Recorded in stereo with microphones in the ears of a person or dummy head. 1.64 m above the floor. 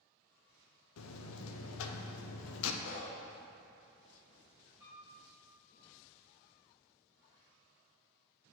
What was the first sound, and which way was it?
A buzzer, 80° left.